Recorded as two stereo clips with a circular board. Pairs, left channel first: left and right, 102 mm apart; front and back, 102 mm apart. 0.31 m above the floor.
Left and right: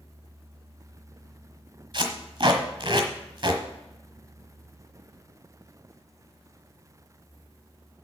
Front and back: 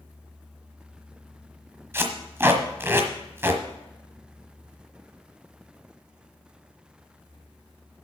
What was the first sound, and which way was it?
Tape being pulled, 120° right.